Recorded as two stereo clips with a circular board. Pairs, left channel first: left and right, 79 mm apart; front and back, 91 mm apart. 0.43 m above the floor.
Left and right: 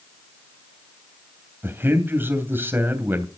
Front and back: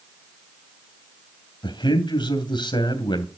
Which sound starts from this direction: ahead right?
A man speaking, at 1.6 s.